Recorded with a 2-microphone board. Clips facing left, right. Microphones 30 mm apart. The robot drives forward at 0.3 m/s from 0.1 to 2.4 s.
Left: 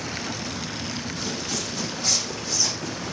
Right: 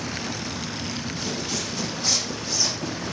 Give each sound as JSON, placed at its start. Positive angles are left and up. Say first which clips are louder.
{"t": 1.2, "sound": "footsteps", "louder": "right 1 dB", "side_deg": -10, "distance_m": 4.0}